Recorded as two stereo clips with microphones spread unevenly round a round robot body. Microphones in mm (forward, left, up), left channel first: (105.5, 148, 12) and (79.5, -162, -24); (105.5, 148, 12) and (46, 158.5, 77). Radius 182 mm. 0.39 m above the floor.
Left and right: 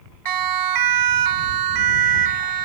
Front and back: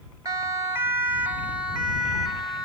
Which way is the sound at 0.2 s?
110° right.